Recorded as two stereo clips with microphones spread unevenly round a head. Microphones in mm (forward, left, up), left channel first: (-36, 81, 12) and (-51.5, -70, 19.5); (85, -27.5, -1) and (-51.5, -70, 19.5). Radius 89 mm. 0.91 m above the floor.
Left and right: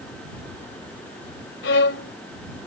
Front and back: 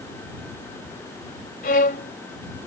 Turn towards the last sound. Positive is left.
turn(degrees=65)